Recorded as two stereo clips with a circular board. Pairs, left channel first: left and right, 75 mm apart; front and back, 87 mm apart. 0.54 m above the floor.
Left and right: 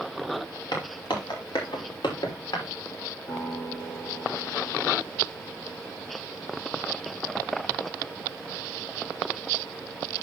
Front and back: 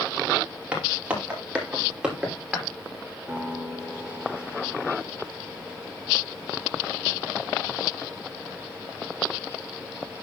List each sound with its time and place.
0.7 s footsteps: 105° left, 5.5 m; by 2.6 s 95° left, 6 m
3.3 s a guitar: 95° left, 5.5 m